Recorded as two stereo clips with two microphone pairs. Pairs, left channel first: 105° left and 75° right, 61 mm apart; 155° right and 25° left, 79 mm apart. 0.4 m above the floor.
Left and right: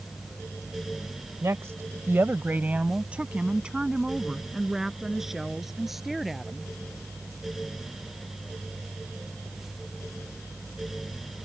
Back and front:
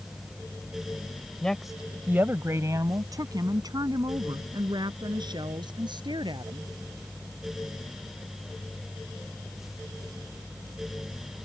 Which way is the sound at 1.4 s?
75° right.